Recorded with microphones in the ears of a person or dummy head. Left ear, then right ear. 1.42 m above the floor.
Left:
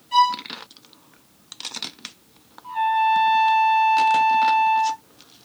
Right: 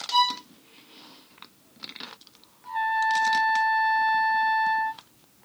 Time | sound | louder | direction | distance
0.1 | a violin | left 5 dB | 25° right (ahead or behind) | 1.2 m
2.6 | a trumpet | left 5 dB | 45° right (ahead or behind) | 1.5 m